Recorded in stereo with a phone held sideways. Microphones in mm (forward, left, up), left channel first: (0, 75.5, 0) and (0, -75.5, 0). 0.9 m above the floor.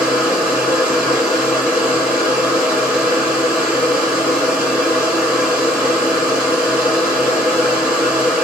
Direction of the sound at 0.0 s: 5° right (ahead or behind).